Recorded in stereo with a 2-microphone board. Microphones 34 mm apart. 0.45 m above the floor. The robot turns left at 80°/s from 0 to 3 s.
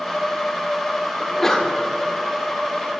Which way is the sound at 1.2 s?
170° left.